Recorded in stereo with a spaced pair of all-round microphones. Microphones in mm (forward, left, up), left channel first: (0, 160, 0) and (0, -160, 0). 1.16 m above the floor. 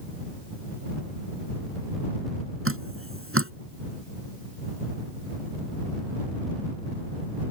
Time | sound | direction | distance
2.6 | dripping | 40° right (ahead or behind) | ?